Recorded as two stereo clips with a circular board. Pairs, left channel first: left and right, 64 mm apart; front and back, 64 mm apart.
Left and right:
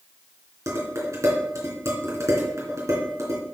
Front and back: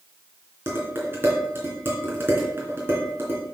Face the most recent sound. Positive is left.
turn(degrees=-125)